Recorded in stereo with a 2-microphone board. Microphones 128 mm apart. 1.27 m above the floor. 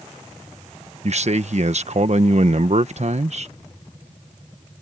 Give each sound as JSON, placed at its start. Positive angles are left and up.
{"t": 1.0, "sound": "a man speaking", "side_deg": -55}